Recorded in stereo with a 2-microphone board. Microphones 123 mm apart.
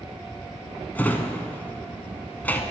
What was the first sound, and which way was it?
A drawer, 15° left (ahead or behind).